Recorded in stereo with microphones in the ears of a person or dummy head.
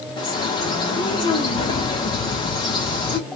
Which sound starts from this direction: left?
A bird, at 0.2 s.